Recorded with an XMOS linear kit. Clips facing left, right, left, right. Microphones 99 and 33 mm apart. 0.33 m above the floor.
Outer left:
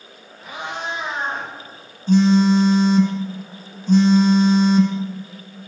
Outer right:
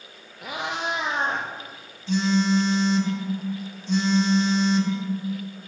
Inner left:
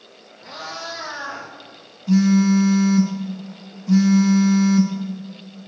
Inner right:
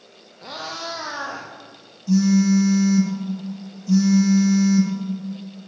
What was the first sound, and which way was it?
A cat meowing, 90° right.